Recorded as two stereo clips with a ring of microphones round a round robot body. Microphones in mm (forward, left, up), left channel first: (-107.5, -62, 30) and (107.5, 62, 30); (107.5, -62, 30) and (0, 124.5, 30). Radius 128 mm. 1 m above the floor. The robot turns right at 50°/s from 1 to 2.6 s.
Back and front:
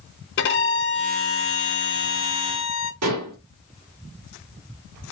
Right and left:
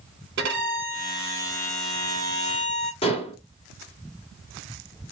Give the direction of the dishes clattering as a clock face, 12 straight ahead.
12 o'clock.